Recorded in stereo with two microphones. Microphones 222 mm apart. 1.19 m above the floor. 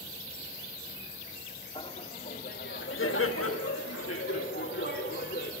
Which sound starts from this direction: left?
Laughter, at 1.8 s.